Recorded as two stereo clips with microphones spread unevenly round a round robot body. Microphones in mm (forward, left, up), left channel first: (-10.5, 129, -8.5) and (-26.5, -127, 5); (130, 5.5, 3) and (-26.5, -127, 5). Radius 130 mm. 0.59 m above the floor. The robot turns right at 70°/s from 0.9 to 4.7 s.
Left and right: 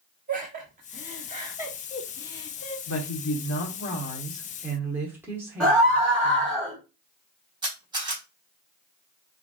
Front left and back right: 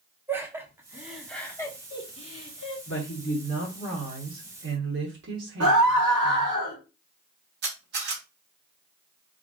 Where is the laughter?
70° right, 1.2 m; by 2.8 s 60° left, 1.2 m.